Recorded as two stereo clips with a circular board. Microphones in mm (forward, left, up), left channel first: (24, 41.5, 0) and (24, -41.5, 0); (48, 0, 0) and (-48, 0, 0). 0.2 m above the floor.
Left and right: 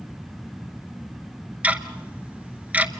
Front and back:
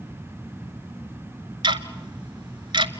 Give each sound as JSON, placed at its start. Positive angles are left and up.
{"t": 1.6, "sound": "ticking", "azimuth_deg": -160, "distance_m": 0.8}